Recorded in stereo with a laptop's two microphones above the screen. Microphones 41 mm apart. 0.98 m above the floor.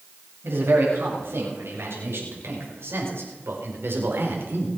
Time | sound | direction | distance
0.4 | a man speaking | 75° right (ahead or behind) | 7 m